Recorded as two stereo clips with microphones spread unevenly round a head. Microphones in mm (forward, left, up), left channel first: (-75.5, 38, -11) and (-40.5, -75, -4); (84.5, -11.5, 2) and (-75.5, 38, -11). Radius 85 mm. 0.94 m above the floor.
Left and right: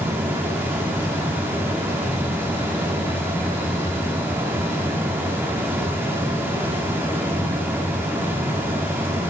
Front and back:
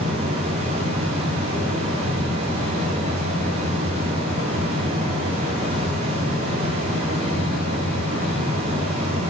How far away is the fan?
About 2.5 m.